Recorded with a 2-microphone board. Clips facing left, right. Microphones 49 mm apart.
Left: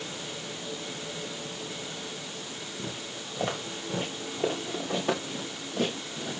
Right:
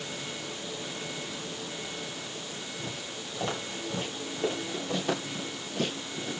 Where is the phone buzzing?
I don't hear a phone buzzing.